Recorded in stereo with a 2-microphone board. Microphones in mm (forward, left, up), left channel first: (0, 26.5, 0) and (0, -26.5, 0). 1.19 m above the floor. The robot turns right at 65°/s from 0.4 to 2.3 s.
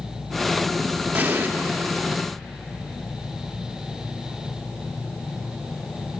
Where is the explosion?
30° right (ahead or behind), 0.9 m; by 1.5 s 40° right (ahead or behind), 0.9 m.